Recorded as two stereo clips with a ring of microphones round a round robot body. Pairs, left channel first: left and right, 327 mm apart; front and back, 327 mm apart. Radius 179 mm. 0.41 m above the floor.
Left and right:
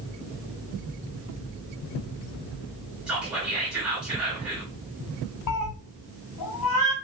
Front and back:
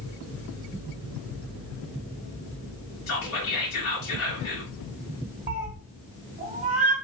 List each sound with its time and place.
3.1 s whispering: 5° right, 1.0 m
5.5 s a cat meowing: 115° left, 1.3 m